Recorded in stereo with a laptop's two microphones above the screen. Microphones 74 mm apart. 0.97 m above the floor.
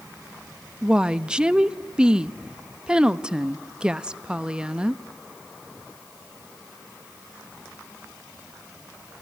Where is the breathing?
No breathing in this recording.